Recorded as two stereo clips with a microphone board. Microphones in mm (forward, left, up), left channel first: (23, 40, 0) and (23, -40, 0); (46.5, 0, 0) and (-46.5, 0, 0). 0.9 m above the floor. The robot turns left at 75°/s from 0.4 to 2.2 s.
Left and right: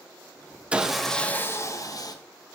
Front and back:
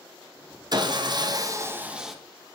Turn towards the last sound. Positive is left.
turn(degrees=90)